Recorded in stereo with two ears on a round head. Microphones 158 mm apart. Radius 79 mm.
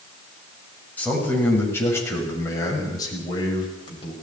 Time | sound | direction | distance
1.0 | a man speaking | 10° left (ahead or behind) | 7 m